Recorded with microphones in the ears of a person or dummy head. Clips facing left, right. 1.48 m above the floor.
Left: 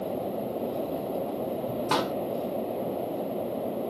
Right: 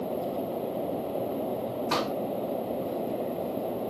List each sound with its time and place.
1.9 s a pop: 40° left (ahead or behind), 1.6 m